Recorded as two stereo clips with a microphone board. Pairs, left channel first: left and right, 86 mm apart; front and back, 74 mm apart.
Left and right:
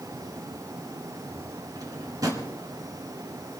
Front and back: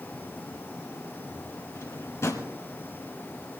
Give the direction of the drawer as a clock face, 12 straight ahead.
2 o'clock.